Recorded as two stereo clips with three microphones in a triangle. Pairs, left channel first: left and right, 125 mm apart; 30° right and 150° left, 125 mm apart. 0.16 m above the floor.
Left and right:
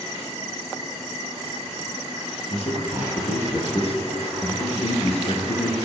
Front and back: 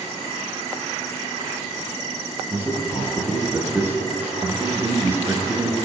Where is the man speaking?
80° left, 2.5 m.